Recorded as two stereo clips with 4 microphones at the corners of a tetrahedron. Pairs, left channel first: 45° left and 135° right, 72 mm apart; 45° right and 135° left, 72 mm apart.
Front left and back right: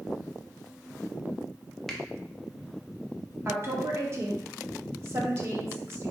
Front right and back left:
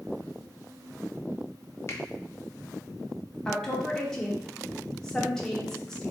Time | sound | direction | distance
1.9 | a finger snap | 35° right | 0.5 m
3.5 | a woman speaking | 120° right | 0.7 m